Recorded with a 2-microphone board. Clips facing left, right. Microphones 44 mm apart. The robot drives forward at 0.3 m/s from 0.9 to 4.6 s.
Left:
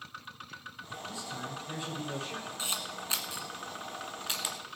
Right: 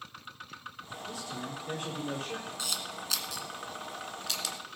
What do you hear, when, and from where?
1.1 s a man speaking: 55° right (ahead or behind), 5.5 m
2.6 s a camera shutter: 30° left (ahead or behind), 1.5 m; by 4.6 s 20° left (ahead or behind), 1.9 m